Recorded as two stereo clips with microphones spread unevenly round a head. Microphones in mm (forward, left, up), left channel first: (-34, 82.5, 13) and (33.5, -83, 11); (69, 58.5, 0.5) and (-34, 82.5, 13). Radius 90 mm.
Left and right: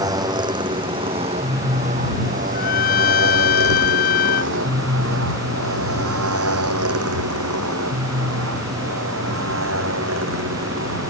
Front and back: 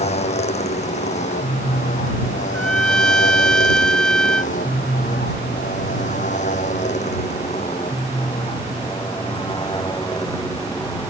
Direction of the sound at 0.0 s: Straight ahead.